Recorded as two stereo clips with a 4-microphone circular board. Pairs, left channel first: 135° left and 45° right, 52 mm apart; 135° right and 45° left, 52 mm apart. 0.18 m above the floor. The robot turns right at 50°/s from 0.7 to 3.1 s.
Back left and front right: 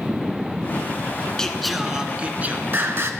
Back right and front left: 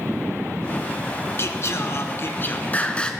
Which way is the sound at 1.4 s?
150° right.